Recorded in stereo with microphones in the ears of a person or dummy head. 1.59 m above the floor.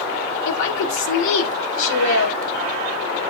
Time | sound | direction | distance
0.5 | a woman speaking | 80° left | 3.5 m